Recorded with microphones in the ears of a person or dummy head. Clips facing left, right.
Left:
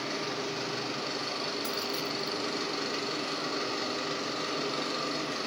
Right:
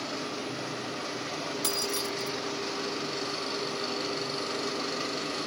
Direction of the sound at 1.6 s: 50° right (ahead or behind).